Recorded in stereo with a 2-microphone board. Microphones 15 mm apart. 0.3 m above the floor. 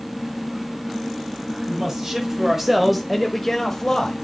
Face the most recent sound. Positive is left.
turn(degrees=40)  # may be behind; listen again after turning